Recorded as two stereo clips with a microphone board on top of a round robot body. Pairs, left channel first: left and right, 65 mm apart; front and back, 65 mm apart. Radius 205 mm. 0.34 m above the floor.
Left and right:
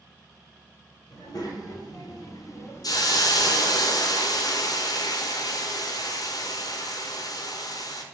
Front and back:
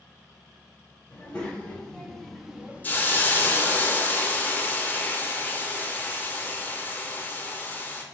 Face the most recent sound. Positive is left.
turn(degrees=65)